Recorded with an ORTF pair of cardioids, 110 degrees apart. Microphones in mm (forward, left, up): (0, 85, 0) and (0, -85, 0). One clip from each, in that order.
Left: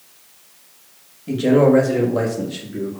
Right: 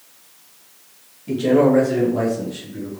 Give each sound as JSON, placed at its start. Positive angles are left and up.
{"t": 1.3, "sound": "a man speaking", "azimuth_deg": 15, "distance_m": 2.0}